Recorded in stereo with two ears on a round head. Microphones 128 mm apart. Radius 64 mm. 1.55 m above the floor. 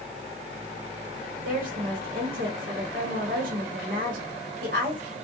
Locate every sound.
1.4 s a woman speaking: 70° right (ahead or behind), 1.0 m